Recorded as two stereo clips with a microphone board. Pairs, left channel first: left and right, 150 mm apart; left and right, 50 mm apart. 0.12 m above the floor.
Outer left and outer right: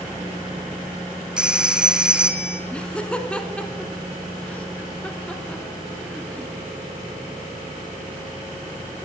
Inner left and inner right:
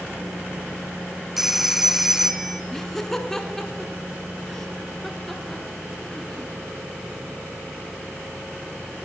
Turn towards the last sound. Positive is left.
turn(degrees=10)  # may be behind; listen again after turning